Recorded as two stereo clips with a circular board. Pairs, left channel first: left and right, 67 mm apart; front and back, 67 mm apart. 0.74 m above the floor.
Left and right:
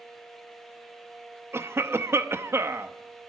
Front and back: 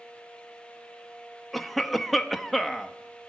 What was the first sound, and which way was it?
A cough, 90° right.